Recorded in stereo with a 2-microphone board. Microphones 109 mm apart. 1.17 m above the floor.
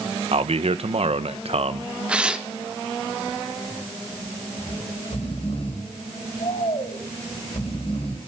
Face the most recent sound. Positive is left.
turn(degrees=60)  # may be behind; listen again after turning